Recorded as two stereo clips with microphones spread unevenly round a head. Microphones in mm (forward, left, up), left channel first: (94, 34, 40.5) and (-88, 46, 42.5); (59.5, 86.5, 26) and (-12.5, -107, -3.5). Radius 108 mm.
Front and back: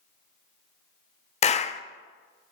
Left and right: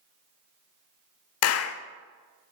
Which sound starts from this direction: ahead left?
A clap, at 1.4 s.